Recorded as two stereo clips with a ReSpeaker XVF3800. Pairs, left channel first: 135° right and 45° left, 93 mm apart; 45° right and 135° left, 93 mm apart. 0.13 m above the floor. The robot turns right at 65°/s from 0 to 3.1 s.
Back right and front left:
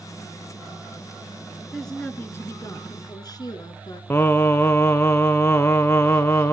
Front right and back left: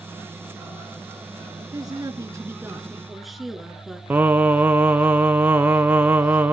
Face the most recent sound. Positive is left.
turn(degrees=-175)